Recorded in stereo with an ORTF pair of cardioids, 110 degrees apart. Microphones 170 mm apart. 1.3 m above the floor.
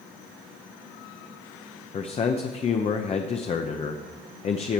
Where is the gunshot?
I don't hear a gunshot.